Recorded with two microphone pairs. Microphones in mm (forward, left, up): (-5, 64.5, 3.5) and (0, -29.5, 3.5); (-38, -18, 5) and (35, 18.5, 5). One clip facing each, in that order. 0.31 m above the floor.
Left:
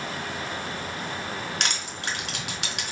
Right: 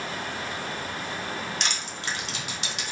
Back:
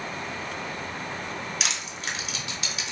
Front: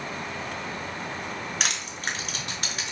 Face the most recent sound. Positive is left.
turn(degrees=65)